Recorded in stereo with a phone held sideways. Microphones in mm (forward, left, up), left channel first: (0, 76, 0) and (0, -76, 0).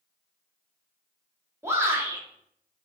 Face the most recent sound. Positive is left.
turn(degrees=-20)  # may be behind; listen again after turning